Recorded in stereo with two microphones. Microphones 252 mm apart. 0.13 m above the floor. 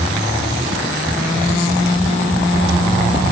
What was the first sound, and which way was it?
Only background noise.